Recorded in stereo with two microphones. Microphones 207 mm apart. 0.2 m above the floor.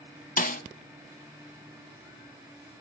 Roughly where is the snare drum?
Left.